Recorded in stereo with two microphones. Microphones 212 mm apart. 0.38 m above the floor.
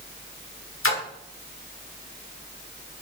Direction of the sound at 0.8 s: 85° left.